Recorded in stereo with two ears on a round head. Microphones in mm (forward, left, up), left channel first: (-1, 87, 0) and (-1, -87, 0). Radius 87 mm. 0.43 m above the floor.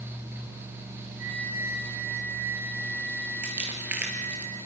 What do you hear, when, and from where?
1.2 s a flute: 30° right (ahead or behind), 9.5 m
3.4 s crumpling: 10° right (ahead or behind), 3.5 m